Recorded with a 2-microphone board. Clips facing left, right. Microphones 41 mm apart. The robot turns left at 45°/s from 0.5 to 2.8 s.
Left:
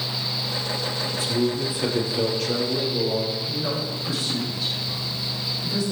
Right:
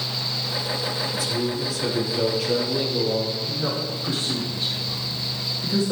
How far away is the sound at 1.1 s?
About 3 m.